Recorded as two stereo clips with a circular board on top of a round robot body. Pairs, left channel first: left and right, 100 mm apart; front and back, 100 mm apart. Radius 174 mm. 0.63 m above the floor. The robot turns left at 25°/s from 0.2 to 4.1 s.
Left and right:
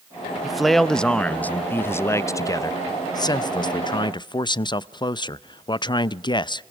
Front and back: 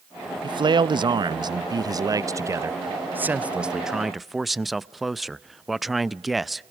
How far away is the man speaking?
About 0.6 m.